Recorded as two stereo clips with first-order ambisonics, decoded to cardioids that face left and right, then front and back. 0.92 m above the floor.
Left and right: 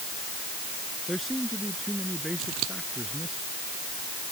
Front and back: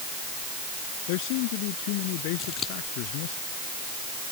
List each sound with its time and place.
1.1 s a man speaking: straight ahead
2.4 s scissors: 60° right